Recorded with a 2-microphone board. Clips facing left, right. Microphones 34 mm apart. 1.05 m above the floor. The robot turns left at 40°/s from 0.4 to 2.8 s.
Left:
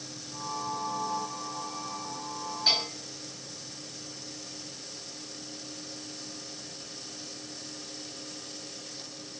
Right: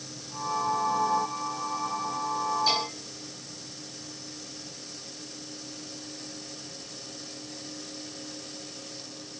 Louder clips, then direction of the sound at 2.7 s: Left 4 dB; 40° left (ahead or behind).